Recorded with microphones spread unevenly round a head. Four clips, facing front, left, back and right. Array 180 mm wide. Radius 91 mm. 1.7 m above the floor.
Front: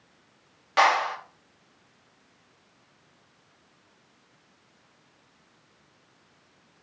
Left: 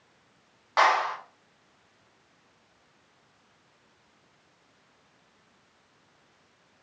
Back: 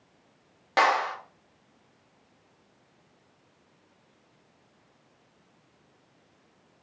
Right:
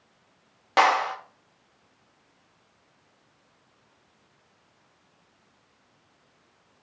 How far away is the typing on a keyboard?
I don't hear typing on a keyboard.